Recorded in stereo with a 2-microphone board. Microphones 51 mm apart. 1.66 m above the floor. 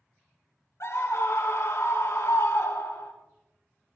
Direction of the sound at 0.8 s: 70° left (ahead or behind).